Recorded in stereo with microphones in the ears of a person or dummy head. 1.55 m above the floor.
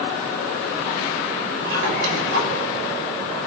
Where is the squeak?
65° right (ahead or behind), 5.5 m.